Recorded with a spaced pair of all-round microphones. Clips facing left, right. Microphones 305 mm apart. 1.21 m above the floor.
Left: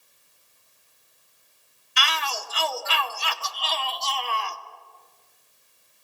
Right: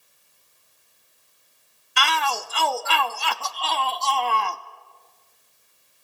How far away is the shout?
About 0.9 m.